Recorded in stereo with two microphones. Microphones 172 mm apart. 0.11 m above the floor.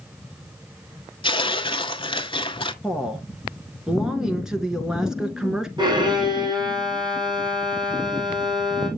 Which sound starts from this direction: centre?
A woman speaking, at 2.8 s.